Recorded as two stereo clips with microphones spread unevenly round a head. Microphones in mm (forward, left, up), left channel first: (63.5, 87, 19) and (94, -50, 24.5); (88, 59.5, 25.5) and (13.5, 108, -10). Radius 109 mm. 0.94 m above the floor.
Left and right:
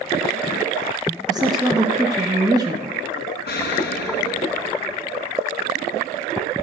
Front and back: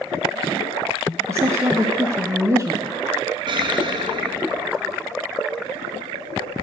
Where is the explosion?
115° left, 3 m.